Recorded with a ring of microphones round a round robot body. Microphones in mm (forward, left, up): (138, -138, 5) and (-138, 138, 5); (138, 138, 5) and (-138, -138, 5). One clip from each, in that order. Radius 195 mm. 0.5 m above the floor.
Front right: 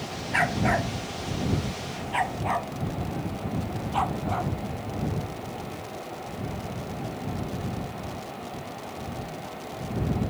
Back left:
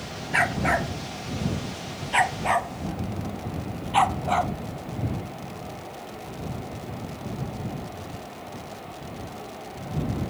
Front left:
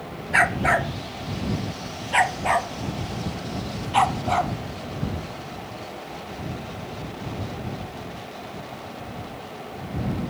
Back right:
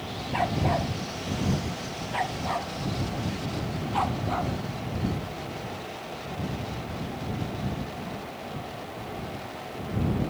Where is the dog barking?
55° left; by 4.5 s 90° left.